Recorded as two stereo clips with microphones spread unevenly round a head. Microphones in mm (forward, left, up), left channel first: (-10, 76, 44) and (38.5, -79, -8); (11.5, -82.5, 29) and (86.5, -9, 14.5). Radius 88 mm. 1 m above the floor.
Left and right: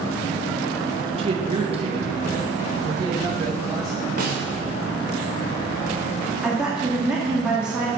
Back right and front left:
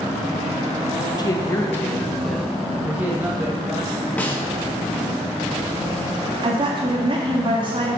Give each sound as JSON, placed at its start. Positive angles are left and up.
{"t": 1.2, "sound": "a man speaking", "azimuth_deg": -90, "distance_m": 1.2}
{"t": 4.2, "sound": "a snare drum", "azimuth_deg": -55, "distance_m": 2.0}
{"t": 6.4, "sound": "a woman speaking", "azimuth_deg": 10, "distance_m": 1.8}